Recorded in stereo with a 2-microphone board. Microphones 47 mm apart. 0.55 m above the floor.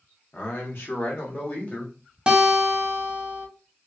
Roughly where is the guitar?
Centre.